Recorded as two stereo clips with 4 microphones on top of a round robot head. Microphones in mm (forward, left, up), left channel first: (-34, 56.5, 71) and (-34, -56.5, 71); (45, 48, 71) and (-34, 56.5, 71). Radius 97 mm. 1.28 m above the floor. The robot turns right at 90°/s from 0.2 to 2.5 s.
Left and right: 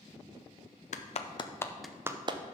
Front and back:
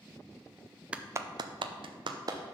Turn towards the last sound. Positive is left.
turn(degrees=-120)